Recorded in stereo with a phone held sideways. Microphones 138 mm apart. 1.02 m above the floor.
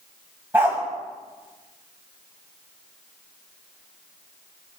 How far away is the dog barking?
About 2.5 m.